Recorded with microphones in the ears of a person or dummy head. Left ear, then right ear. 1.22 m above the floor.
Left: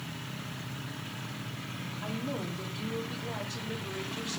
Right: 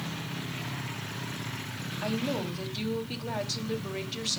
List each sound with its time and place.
2.0 s a woman speaking: 75° right (ahead or behind), 1.9 m